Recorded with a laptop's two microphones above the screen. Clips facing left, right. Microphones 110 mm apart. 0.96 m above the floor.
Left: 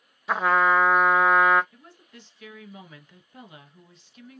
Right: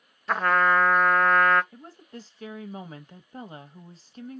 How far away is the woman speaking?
About 1.1 m.